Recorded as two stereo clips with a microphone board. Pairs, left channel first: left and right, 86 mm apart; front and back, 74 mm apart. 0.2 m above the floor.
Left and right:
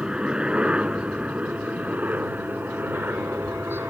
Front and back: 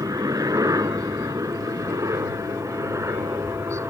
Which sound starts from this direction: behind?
A helicopter, at 0.0 s.